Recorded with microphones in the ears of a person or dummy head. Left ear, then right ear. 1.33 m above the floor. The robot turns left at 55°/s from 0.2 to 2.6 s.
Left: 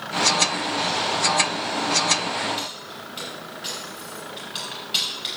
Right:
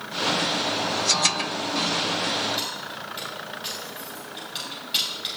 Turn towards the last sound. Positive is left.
turn(degrees=0)  # may be behind; listen again after turning